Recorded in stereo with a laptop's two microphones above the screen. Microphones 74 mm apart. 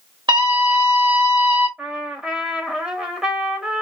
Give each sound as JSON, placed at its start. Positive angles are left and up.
{"t": 0.3, "sound": "a scream", "side_deg": -80, "distance_m": 1.4}
{"t": 1.8, "sound": "a trumpet", "side_deg": -10, "distance_m": 0.9}